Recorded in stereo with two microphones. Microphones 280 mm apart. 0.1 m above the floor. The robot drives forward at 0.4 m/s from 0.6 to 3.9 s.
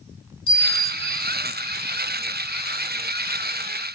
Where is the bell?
5° left (ahead or behind), 0.5 m.